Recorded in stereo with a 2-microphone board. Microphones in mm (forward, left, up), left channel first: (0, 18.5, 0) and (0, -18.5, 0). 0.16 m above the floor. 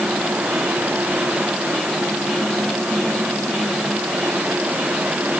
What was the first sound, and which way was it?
Only background noise.